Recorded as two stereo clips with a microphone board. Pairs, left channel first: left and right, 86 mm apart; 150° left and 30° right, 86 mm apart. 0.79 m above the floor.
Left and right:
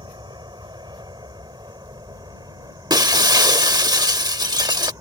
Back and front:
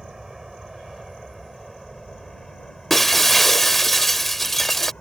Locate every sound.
0.0 s an aircraft: 115° right; by 5.0 s 135° right
2.9 s breaking glass: 125° right